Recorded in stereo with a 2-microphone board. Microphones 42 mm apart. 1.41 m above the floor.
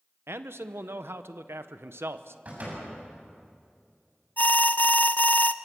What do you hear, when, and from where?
0.3 s a man speaking: 80° right, 1.0 m
2.5 s a door slam: 45° right (ahead or behind), 7.5 m
4.4 s an alarm: 45° left (ahead or behind), 0.6 m